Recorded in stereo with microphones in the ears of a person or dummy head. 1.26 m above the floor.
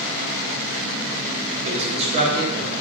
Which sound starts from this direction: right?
A man speaking, at 1.6 s.